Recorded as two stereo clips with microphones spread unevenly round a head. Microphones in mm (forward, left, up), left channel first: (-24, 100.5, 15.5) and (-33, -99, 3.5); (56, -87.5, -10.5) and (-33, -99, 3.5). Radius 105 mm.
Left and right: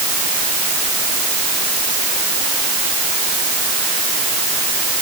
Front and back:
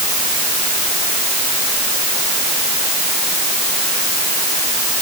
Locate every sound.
Only background noise.